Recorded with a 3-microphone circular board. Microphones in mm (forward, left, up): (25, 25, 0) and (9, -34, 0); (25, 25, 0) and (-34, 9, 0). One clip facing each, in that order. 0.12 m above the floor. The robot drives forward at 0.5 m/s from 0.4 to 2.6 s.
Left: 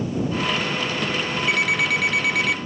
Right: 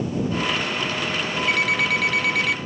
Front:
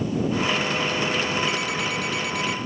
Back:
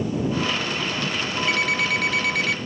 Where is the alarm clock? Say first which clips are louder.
Even, back 4 dB; 160° left.